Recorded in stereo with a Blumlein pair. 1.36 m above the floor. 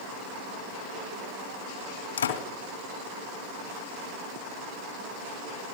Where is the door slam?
65° left, 2 m.